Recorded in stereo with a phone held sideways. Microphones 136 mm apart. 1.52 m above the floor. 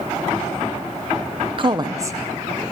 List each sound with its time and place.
1.6 s a woman speaking: 40° right (ahead or behind), 0.7 m; by 2.6 s 15° right (ahead or behind), 1.6 m